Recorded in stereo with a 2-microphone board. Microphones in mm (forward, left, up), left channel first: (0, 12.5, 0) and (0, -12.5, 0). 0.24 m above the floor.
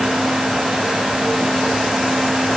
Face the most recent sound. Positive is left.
No sound to turn to.